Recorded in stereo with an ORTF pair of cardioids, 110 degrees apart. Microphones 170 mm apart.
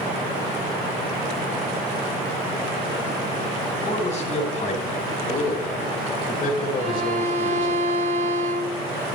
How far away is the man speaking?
About 5 m.